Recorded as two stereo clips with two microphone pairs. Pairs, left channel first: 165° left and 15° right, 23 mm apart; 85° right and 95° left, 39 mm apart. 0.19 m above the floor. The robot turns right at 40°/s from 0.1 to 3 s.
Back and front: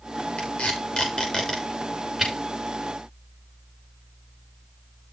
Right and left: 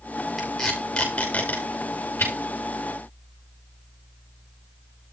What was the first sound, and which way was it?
Tape being pulled, 175° right.